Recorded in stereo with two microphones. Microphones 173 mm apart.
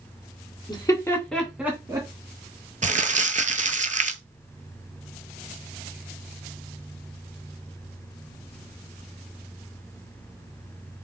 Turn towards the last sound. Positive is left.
turn(degrees=-45)  # may be behind; listen again after turning